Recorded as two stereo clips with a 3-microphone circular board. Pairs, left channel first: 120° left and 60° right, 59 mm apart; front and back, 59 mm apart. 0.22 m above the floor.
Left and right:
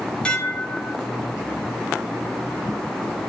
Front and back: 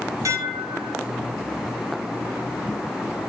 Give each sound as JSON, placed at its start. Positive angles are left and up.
{"t": 0.2, "sound": "dishes clattering", "azimuth_deg": -170, "distance_m": 1.5}